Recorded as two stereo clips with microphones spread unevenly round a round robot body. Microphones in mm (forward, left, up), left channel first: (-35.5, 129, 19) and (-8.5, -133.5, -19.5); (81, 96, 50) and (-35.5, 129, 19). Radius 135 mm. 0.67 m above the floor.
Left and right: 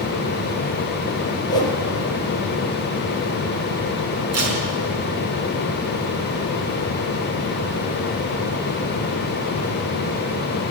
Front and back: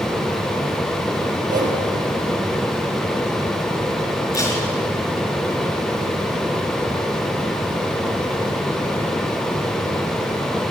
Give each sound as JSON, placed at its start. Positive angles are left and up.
{"t": 1.5, "sound": "a whoosh", "azimuth_deg": 170, "distance_m": 4.5}
{"t": 4.3, "sound": "tape being pulled", "azimuth_deg": -105, "distance_m": 5.0}